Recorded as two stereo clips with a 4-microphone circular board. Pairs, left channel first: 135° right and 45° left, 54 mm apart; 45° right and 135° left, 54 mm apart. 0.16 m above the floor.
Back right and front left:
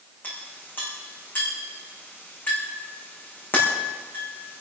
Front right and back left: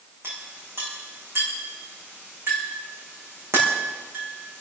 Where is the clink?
175° left, 6.5 m.